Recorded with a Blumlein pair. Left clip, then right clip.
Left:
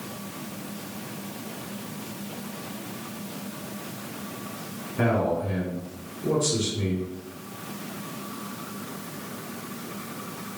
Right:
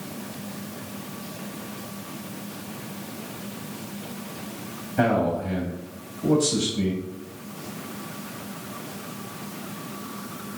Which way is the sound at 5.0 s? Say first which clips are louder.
Right 2 dB; 40° right.